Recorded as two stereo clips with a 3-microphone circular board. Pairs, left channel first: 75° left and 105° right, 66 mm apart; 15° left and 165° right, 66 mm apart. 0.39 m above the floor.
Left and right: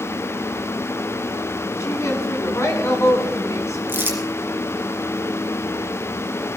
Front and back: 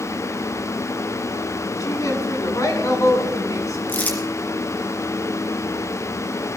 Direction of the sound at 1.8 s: 40° left.